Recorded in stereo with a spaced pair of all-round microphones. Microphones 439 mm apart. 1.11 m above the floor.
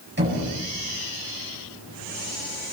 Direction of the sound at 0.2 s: 25° right (ahead or behind).